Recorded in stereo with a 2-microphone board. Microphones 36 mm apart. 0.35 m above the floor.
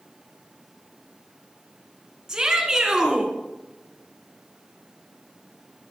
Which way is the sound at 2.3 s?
20° right (ahead or behind).